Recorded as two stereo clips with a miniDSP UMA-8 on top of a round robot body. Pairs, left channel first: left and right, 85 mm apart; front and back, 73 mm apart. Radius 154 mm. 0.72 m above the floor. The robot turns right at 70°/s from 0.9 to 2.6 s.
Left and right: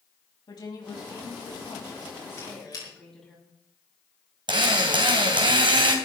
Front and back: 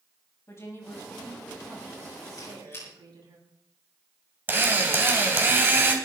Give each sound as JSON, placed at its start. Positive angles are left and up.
{"t": 0.5, "sound": "a woman speaking", "azimuth_deg": 55, "distance_m": 7.0}
{"t": 2.4, "sound": "a squeak", "azimuth_deg": 40, "distance_m": 7.0}
{"t": 4.5, "sound": "a drill", "azimuth_deg": -120, "distance_m": 3.0}